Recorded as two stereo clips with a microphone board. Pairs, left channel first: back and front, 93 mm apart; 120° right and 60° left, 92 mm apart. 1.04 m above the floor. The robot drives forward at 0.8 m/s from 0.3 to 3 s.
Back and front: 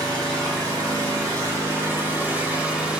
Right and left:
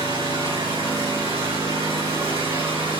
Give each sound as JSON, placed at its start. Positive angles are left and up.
{"t": 0.0, "sound": "an engine running", "azimuth_deg": 45, "distance_m": 3.5}